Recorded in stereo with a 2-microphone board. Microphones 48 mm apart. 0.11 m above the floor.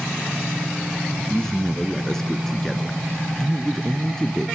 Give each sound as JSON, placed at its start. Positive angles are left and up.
{"t": 1.2, "sound": "a man speaking", "side_deg": 10, "distance_m": 1.1}